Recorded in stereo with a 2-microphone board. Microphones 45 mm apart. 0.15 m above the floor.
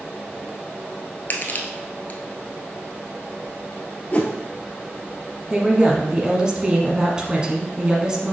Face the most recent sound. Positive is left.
turn(degrees=-20)  # may be behind; listen again after turning